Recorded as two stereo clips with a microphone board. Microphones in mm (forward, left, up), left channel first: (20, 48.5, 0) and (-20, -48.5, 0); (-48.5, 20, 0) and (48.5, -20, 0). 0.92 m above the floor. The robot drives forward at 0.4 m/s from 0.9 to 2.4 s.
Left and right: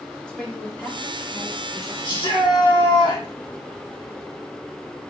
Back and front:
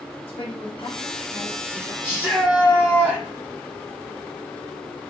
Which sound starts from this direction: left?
A shout, at 2.0 s.